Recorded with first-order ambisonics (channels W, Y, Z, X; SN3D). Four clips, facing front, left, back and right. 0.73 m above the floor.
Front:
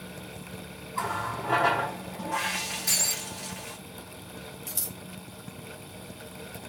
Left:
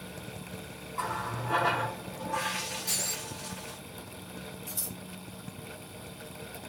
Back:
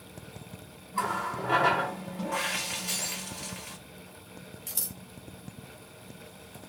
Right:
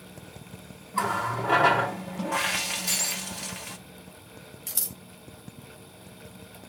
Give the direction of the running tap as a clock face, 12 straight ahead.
3 o'clock.